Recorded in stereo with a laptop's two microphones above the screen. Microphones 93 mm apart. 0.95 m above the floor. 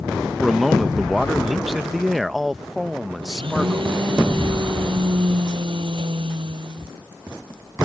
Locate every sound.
0.4 s a man speaking: centre (ahead or behind)
3.2 s a blender: 70° right (ahead or behind)